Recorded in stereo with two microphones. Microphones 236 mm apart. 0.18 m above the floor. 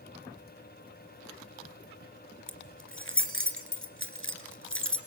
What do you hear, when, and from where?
2.5 s keys jangling: 65° left (ahead or behind), 1.9 m